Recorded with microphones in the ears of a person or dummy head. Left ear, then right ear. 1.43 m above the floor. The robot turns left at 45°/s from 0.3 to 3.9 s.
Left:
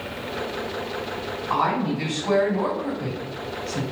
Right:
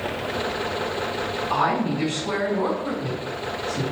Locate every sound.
1.5 s a woman speaking: straight behind, 1.8 m; by 3.8 s 75° left, 1.8 m